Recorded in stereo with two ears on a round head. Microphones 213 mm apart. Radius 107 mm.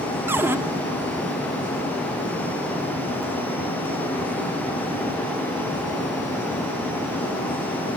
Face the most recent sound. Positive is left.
turn(degrees=-10)  # may be behind; listen again after turning